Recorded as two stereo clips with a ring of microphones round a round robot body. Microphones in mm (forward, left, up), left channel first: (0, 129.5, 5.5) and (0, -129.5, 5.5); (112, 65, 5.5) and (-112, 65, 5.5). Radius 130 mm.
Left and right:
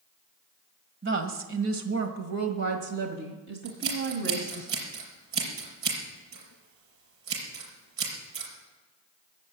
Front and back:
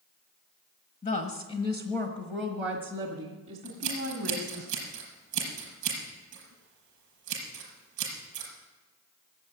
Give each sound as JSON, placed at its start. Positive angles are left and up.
{"t": 1.0, "sound": "a woman speaking", "azimuth_deg": -55, "distance_m": 1.4}
{"t": 3.6, "sound": "scissors", "azimuth_deg": -130, "distance_m": 5.5}